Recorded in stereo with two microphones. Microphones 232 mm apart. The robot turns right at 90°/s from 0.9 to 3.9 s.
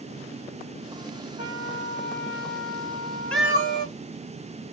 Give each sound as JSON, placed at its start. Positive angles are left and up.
{"t": 1.4, "sound": "a trumpet", "azimuth_deg": -30, "distance_m": 1.5}
{"t": 3.3, "sound": "a cat meowing", "azimuth_deg": 175, "distance_m": 0.7}